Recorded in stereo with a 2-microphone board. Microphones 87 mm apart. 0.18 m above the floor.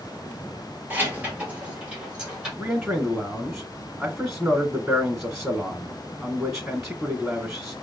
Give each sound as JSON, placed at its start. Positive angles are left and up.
{"t": 0.9, "sound": "keys jangling", "side_deg": -25, "distance_m": 2.0}
{"t": 2.6, "sound": "a man speaking", "side_deg": -10, "distance_m": 1.6}